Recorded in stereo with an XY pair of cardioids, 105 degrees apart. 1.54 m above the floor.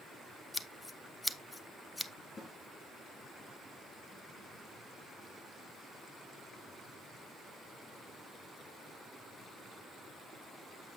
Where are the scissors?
15° left, 0.7 m.